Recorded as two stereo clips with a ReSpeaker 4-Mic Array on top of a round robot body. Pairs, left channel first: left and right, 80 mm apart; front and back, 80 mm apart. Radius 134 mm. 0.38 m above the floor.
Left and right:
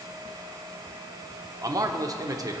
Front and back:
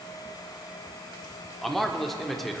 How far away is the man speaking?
About 1.2 m.